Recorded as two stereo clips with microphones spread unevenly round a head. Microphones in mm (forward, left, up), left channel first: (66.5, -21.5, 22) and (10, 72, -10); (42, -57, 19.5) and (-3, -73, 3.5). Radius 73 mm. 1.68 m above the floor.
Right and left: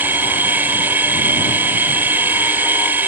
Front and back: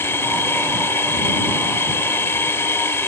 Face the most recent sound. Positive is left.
turn(degrees=40)